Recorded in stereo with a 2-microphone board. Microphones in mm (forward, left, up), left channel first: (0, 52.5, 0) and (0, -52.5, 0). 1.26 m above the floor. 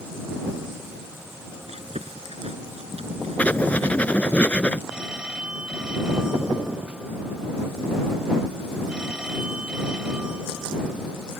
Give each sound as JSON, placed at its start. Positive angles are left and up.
{"t": 1.7, "sound": "chewing", "side_deg": -85}
{"t": 3.4, "sound": "writing", "side_deg": 10}
{"t": 4.9, "sound": "a phone ringing", "side_deg": -10}